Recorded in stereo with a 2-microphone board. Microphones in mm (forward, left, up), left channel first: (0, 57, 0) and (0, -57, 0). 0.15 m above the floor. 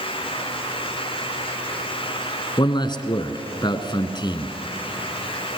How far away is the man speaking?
About 1.7 m.